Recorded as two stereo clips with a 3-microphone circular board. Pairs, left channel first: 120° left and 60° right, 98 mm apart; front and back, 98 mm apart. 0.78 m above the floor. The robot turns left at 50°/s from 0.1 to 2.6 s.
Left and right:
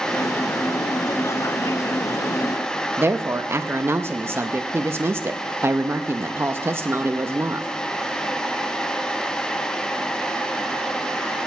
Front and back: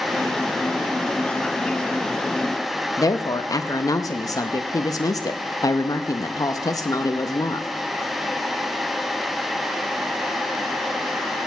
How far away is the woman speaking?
About 0.5 m.